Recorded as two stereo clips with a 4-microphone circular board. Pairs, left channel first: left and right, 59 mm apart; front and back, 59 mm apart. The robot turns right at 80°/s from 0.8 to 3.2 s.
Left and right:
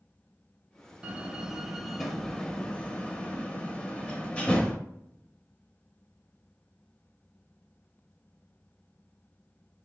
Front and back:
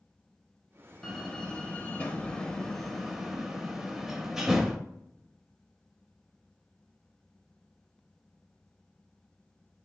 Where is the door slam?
65° right, 0.5 m; by 4.8 s 110° left, 0.5 m.